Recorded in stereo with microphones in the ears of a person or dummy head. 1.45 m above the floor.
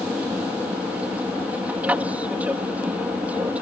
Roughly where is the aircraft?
Centre.